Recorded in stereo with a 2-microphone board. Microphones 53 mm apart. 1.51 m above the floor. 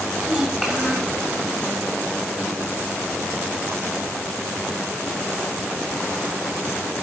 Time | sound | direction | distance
0.2 | a child speaking | 5° right (ahead or behind) | 7 m